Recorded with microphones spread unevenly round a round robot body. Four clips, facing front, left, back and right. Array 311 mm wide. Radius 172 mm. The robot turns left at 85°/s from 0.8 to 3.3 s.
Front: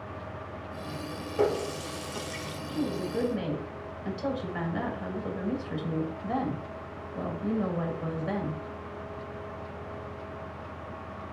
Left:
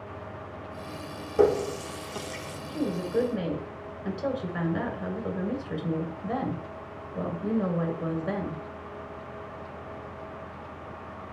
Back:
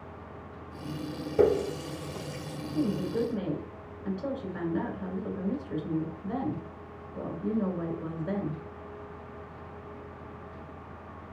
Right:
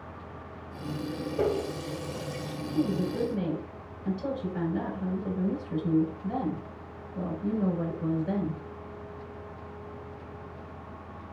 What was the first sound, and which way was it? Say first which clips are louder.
A running tap: left 7 dB, back 4 dB; 145° left.